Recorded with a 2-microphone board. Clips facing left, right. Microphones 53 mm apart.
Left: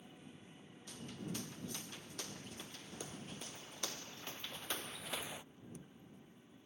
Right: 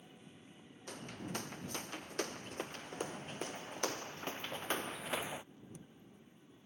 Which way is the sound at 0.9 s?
55° right (ahead or behind).